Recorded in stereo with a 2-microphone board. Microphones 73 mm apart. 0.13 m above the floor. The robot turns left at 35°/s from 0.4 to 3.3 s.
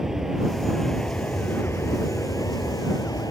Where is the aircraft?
175° right; by 3.3 s 85° left.